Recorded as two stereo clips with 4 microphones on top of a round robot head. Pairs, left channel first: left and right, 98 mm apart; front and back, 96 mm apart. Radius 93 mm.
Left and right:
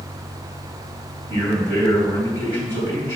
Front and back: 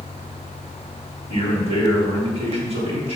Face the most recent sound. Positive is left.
turn(degrees=-155)